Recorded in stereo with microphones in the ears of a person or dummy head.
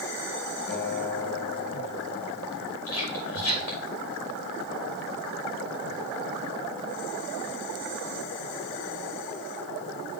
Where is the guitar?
60° left (ahead or behind), 2 m.